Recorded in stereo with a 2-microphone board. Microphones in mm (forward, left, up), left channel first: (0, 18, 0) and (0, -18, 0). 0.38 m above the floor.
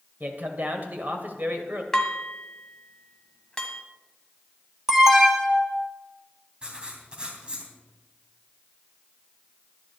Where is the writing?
25° right (ahead or behind), 2.5 m.